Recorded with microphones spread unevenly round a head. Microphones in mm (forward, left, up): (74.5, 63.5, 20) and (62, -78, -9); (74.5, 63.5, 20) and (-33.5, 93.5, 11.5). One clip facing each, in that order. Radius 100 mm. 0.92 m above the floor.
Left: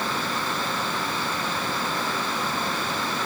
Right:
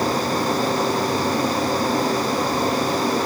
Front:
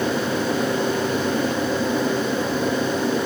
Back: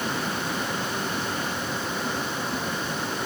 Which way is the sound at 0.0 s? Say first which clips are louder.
Right 8 dB, front 7 dB; 45° right.